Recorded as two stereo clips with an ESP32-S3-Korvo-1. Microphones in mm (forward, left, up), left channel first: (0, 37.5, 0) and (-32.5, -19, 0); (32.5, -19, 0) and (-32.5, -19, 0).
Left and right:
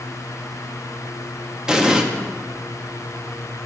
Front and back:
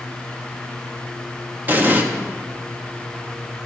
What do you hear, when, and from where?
1.7 s an explosion: 170° left, 0.5 m